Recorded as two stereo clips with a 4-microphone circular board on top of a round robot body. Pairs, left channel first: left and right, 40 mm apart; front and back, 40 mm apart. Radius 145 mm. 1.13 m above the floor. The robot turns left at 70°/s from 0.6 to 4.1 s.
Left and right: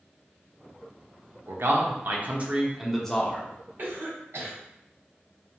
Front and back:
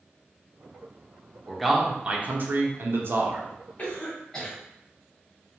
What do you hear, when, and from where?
1.5 s a man speaking: 75° right, 0.7 m; by 3.5 s 140° left, 0.7 m
3.8 s a cough: 55° right, 1.1 m; by 4.6 s 75° right, 1.1 m